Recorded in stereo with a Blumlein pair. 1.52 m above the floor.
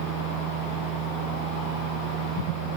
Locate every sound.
0.0 s a machine running: 40° right